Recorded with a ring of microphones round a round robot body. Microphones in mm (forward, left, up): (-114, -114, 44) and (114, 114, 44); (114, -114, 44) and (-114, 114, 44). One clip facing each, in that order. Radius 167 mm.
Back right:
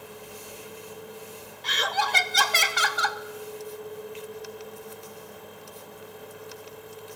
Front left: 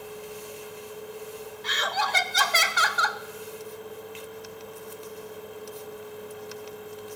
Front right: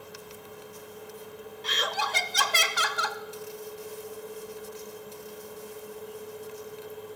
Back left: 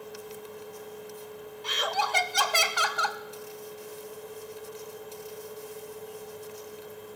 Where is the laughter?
100° right, 0.7 m.